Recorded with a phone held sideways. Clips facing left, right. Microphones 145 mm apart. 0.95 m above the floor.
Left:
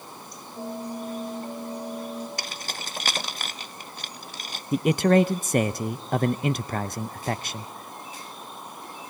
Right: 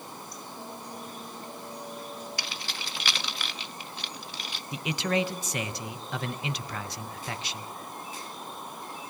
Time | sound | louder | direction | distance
0.6 | a bell | left 11 dB | 60° left (ahead or behind) | 6.5 m
2.4 | keys jangling | left 3 dB | 50° left (ahead or behind) | 0.6 m
4.7 | a man speaking | left 10 dB | 50° left (ahead or behind) | 0.5 m